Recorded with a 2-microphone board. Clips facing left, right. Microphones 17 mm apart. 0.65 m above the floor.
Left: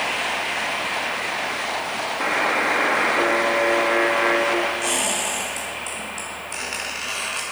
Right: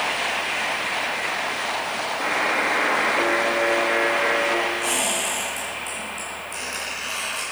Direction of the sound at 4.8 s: 30° left (ahead or behind).